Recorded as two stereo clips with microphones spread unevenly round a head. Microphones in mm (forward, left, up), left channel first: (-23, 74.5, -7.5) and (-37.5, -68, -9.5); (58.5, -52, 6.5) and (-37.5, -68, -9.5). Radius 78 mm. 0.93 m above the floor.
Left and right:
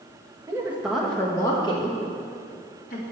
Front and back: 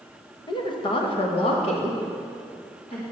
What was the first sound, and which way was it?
A woman speaking, 30° right.